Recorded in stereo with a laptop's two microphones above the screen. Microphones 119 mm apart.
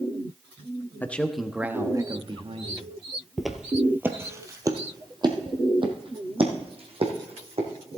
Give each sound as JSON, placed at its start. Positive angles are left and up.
{"t": 1.0, "sound": "a man speaking", "side_deg": 15, "distance_m": 1.2}
{"t": 3.4, "sound": "footsteps", "side_deg": 0, "distance_m": 1.1}